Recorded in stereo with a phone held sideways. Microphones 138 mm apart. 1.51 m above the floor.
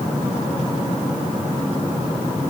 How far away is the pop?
No pop in this recording.